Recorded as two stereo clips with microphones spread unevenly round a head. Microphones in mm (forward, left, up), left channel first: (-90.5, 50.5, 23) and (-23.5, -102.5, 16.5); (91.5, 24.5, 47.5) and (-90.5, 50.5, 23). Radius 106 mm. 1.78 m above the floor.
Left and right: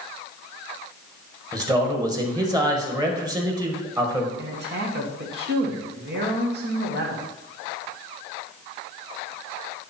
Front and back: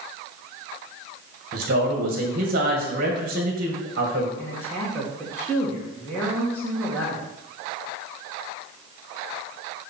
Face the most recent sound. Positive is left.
turn(degrees=-90)